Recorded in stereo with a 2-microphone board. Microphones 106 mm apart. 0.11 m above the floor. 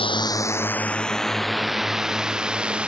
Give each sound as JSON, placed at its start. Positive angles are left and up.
{"t": 0.0, "sound": "a drone", "side_deg": 55}